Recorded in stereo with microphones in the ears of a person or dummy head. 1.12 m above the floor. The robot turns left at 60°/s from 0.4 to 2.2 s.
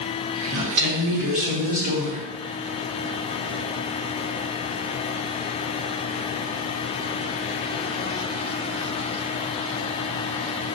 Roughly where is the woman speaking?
Ahead right.